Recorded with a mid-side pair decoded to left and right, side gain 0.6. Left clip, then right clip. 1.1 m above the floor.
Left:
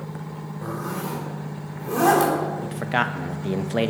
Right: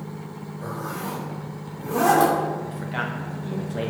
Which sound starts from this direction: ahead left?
A man speaking, at 2.6 s.